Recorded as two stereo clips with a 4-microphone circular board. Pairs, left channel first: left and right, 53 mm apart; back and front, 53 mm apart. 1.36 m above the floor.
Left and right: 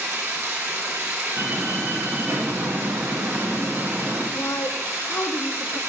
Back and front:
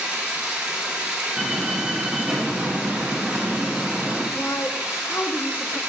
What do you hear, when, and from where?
0.0 s running water: 65° right, 2 m
1.4 s a door slam: 80° right, 1.6 m
4.3 s a woman speaking: 125° left, 0.7 m